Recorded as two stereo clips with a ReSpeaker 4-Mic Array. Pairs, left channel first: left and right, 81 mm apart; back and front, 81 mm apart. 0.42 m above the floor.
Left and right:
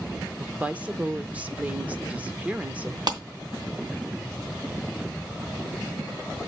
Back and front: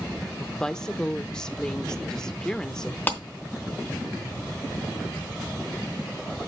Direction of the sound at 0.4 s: 115° right.